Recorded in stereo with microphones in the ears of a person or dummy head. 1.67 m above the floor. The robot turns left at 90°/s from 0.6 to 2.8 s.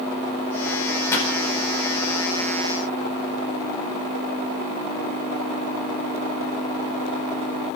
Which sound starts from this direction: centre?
A pop, at 1.1 s.